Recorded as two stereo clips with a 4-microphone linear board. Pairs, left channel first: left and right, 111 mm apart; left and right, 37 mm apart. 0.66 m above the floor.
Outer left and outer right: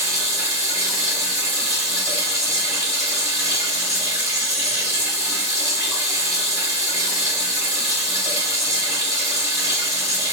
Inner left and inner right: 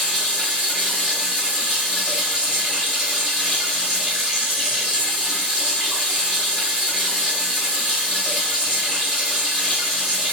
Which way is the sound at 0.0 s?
30° right (ahead or behind).